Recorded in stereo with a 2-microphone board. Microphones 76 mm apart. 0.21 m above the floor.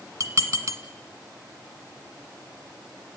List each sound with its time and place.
0.2 s dishes clattering: 45° right (ahead or behind), 1.4 m